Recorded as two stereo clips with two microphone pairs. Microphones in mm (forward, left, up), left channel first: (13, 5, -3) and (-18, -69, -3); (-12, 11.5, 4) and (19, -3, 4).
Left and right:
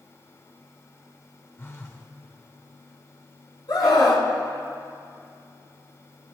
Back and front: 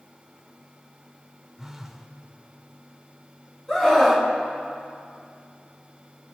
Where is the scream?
80° left, 3.5 m.